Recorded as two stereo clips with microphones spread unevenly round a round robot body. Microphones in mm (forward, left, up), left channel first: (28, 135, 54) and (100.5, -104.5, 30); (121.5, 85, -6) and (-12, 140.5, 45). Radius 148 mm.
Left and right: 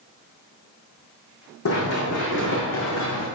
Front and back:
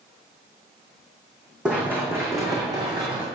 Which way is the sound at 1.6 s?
80° left.